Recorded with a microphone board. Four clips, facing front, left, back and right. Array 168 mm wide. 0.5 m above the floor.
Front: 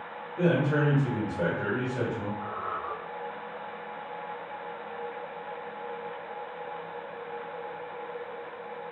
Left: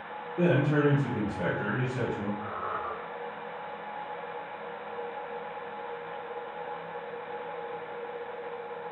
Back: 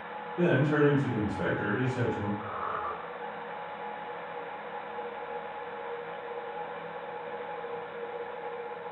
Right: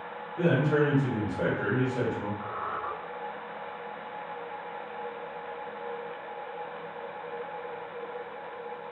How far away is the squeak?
About 1.8 m.